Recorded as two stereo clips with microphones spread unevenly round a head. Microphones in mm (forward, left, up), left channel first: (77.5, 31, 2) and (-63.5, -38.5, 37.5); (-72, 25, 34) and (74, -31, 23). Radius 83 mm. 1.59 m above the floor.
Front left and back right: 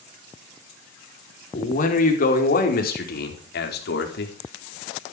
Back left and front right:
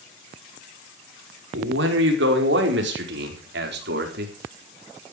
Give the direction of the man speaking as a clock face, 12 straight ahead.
1 o'clock.